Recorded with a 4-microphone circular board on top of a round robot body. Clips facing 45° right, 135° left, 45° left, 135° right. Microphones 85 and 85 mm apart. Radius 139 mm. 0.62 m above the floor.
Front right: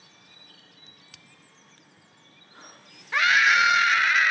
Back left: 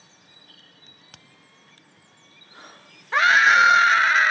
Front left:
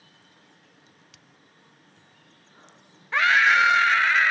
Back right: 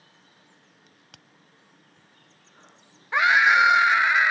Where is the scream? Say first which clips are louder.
Back left 5 dB, back right 1 dB; 160° left.